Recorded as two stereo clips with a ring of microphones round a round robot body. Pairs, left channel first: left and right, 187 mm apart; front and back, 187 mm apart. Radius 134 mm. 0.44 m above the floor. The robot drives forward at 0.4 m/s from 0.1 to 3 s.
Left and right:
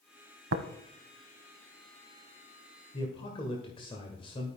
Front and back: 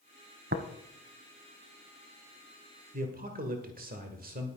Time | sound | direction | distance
0.5 | tapping | 120° right | 0.7 m
2.9 | a man speaking | 150° left | 1.6 m